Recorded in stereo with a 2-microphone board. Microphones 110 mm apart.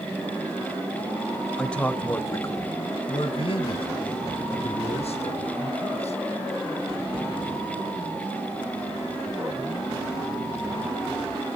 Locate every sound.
1.6 s a man speaking: 5° left (ahead or behind), 1.3 m; by 6.2 s 75° left (ahead or behind), 3 m